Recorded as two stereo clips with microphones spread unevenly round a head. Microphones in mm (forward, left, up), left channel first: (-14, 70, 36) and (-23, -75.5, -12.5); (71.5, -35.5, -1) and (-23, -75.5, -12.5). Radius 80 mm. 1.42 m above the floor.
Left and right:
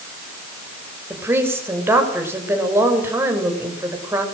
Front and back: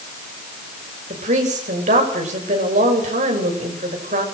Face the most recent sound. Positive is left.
turn(degrees=-170)